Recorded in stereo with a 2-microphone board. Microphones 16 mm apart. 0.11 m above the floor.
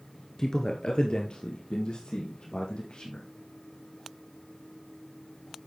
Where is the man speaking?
35° left (ahead or behind), 1.4 m; by 3.2 s 75° left (ahead or behind), 5 m.